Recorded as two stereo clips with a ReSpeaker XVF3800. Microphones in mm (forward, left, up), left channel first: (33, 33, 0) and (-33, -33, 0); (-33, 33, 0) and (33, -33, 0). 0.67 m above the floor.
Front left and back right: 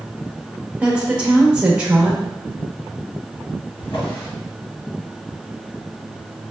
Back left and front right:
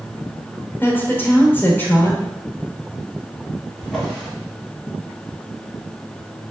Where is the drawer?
45° left, 1.3 m.